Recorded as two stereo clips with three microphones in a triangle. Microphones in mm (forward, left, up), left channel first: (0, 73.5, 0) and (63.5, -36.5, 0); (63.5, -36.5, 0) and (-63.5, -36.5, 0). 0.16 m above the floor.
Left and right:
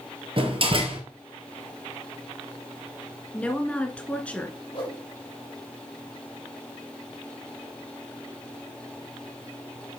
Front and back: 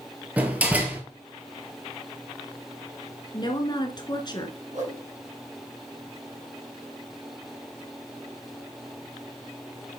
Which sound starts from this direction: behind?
A whoosh, at 4.7 s.